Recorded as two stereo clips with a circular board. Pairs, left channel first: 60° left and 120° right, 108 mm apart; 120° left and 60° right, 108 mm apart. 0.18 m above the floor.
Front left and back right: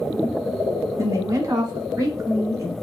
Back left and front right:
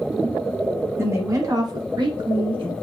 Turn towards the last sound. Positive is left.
turn(degrees=-65)